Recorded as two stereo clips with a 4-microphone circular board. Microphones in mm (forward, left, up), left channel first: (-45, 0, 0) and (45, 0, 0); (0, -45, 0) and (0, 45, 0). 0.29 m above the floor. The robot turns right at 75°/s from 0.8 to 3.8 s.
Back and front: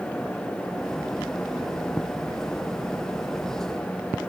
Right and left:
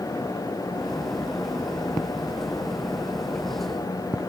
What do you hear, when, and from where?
Only background noise.